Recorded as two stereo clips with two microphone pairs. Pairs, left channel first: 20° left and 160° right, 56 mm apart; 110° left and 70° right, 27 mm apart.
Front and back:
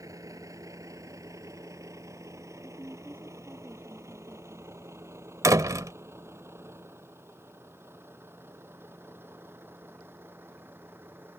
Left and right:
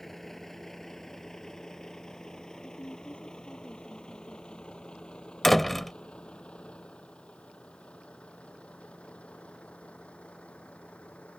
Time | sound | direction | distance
0.0 | a vehicle | 170° right | ?
2.6 | a woman speaking | 145° left | ?
5.4 | a door slam | 165° right | ?